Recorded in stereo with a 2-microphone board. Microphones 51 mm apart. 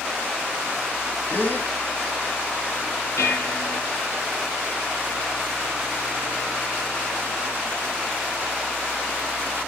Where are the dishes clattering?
70° left (ahead or behind), 2.5 m.